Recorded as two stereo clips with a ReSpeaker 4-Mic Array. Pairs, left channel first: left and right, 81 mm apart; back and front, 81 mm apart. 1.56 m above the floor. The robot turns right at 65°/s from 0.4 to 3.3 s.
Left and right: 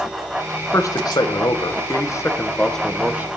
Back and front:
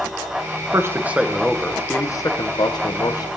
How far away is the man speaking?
About 0.8 m.